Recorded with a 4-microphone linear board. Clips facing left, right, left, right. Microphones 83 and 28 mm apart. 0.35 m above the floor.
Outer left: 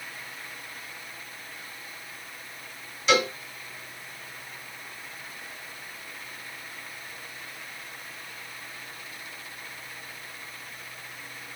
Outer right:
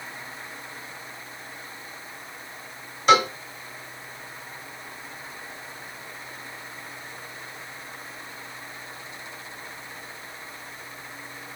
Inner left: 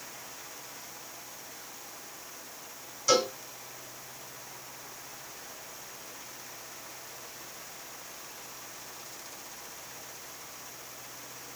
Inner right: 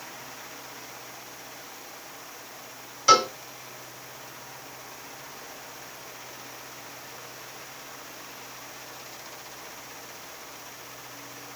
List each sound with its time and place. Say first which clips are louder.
3.1 s a cowbell: outer right 5 dB, inner right 7 dB; 50° right (ahead or behind), 1.5 m